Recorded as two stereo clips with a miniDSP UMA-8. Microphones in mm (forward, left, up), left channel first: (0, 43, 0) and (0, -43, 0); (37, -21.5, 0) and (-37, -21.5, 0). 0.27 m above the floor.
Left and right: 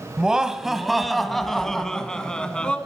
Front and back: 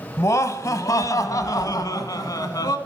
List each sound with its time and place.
0.2 s laughter: 15° right, 1.6 m; by 2.8 s 15° left, 2.5 m